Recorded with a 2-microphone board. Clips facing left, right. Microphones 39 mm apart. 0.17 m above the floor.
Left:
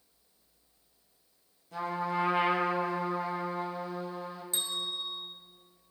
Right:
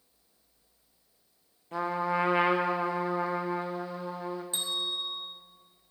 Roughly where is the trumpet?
Right.